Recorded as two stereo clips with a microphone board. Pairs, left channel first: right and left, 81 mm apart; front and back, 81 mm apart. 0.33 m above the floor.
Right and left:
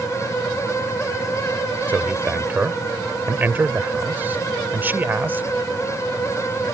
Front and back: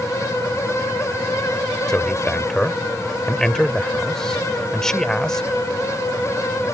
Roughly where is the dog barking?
I don't hear a dog barking.